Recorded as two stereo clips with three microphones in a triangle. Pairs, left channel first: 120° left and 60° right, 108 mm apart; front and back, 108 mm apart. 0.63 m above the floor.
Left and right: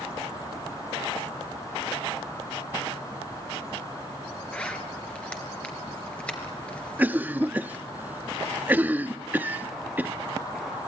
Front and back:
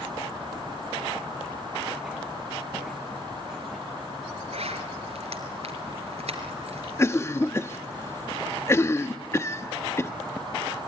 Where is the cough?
15° right, 0.9 m.